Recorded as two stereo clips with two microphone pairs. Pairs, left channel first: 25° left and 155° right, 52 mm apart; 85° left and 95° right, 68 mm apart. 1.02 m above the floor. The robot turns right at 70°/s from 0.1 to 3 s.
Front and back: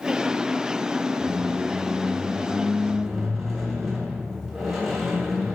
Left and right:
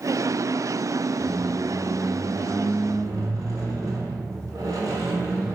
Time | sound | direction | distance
1.2 | a squeak | 165° left | 1.5 m